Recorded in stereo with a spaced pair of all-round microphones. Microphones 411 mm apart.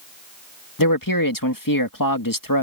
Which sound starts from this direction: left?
A man speaking, at 0.8 s.